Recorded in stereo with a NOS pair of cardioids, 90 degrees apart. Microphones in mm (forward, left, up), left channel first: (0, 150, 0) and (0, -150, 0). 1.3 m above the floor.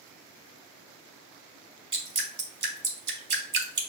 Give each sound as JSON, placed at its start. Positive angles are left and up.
{"t": 1.9, "sound": "dripping", "azimuth_deg": -35, "distance_m": 2.0}